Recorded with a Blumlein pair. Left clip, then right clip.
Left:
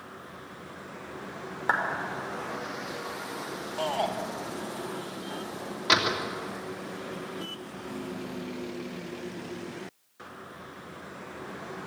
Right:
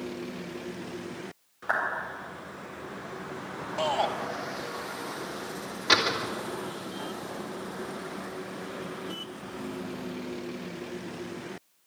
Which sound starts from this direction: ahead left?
A clap, at 1.7 s.